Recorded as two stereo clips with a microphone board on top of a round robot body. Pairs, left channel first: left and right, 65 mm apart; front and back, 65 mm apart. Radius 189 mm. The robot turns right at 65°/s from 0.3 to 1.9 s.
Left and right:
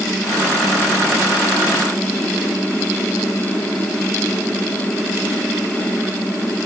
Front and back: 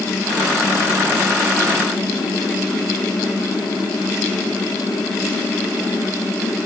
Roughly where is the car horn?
I don't hear a car horn.